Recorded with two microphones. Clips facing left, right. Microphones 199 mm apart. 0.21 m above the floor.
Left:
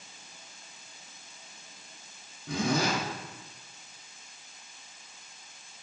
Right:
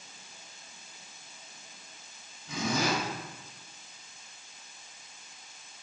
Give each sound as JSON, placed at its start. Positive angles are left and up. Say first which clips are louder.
{"t": 2.5, "sound": "a zipper", "louder": "left 2 dB", "side_deg": 65, "distance_m": 6.5}